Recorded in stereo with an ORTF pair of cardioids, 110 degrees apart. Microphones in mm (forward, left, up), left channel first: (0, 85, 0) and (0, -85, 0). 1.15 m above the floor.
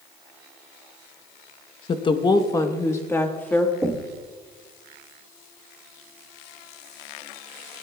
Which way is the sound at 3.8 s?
15° right.